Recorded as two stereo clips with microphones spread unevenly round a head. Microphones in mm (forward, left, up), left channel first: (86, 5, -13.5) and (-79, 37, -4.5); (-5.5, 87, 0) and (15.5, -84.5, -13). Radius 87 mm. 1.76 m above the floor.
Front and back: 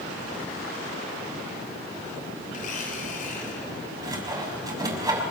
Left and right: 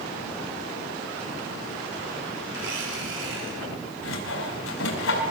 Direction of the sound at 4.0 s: 100° left.